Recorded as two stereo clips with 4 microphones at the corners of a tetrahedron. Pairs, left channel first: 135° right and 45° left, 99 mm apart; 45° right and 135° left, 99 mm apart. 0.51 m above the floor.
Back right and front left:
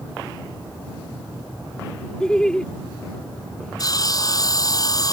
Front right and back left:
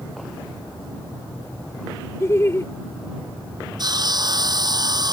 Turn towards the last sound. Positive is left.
turn(degrees=175)